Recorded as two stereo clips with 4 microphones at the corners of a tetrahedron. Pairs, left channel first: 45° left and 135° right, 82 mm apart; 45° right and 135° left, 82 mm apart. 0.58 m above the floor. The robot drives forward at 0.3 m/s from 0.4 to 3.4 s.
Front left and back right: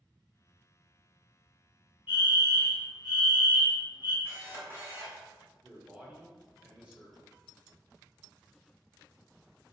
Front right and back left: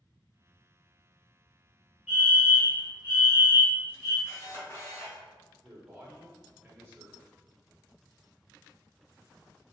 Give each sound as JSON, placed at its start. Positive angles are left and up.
{"t": 2.1, "sound": "a fire alarm", "azimuth_deg": -150, "distance_m": 1.8}
{"t": 4.2, "sound": "a camera shutter", "azimuth_deg": -85, "distance_m": 1.2}
{"t": 5.6, "sound": "a man speaking", "azimuth_deg": 165, "distance_m": 0.6}